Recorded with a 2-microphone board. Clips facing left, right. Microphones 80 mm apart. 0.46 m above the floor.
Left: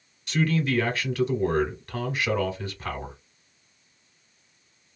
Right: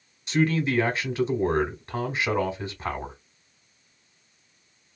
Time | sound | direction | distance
0.3 | a man speaking | 20° right (ahead or behind) | 1.2 m